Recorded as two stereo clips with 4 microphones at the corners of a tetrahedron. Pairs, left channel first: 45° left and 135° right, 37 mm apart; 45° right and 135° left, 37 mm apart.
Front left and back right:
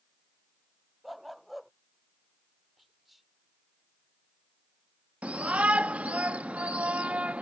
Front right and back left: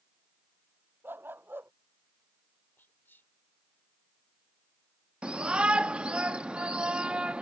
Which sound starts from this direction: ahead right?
Whispering, at 2.8 s.